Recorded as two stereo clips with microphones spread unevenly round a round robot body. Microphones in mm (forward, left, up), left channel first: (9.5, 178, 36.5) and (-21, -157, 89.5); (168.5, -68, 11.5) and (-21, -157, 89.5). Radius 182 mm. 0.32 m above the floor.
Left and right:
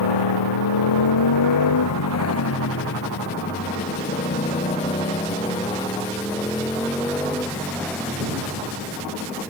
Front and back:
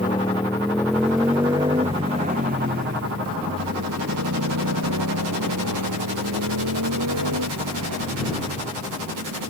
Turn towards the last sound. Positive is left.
turn(degrees=175)